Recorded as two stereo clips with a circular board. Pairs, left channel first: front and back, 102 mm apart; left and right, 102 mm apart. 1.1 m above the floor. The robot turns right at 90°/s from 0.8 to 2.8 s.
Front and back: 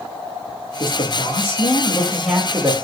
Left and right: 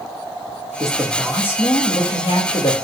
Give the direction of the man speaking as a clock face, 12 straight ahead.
1 o'clock.